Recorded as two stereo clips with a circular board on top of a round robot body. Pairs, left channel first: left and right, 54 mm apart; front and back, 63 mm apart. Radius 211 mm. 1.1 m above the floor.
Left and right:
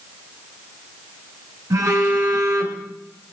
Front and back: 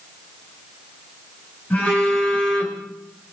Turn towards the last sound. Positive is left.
turn(degrees=-70)